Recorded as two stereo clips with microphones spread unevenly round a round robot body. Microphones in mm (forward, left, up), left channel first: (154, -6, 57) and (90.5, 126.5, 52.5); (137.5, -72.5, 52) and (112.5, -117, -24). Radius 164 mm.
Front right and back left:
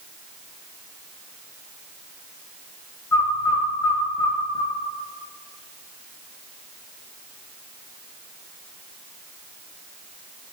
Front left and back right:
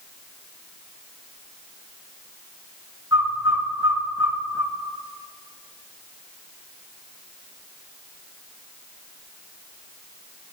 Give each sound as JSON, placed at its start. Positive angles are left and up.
{"t": 3.1, "sound": "a bird", "azimuth_deg": -140, "distance_m": 0.6}